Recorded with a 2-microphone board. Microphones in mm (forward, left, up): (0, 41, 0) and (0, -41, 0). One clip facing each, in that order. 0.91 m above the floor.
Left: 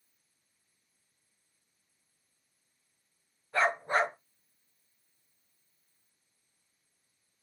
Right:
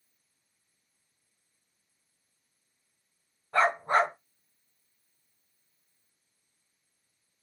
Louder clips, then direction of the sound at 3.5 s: Right 4 dB; 65° right (ahead or behind).